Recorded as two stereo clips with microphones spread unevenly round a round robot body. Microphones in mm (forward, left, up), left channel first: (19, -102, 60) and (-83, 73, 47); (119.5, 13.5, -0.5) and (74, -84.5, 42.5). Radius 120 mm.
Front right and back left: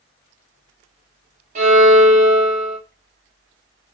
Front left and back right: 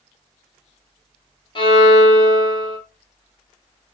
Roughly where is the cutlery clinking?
No cutlery clinking in this recording.